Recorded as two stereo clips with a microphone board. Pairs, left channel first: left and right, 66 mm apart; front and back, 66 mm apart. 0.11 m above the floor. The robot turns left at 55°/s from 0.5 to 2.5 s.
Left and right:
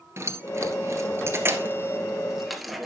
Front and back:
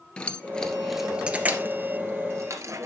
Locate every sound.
0.2 s keys jangling: 70° right, 1.4 m; by 2.9 s straight behind, 1.4 m